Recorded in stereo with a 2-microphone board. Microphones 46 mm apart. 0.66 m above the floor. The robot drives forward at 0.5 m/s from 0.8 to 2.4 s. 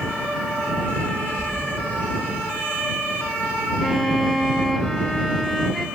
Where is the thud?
25° left (ahead or behind), 7 m.